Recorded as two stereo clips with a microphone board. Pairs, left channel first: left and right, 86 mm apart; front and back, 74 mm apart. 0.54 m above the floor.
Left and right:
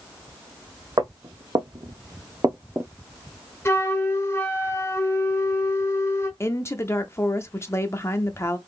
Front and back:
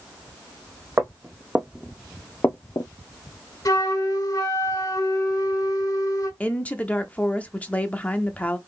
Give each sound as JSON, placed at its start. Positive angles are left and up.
{"t": 1.0, "sound": "footsteps", "azimuth_deg": -120, "distance_m": 1.4}
{"t": 3.6, "sound": "a flute", "azimuth_deg": 30, "distance_m": 1.2}
{"t": 6.4, "sound": "a woman speaking", "azimuth_deg": 60, "distance_m": 0.8}